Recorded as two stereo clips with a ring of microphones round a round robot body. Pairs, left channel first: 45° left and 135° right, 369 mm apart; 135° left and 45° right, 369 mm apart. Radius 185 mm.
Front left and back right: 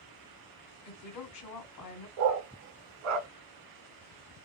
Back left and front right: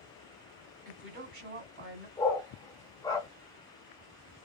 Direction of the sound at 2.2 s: 145° right.